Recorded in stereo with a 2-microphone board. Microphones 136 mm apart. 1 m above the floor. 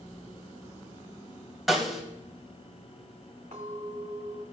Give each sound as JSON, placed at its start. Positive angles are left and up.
{"t": 1.7, "sound": "a snare drum", "side_deg": 0, "distance_m": 2.0}
{"t": 3.5, "sound": "a clink", "side_deg": -80, "distance_m": 5.5}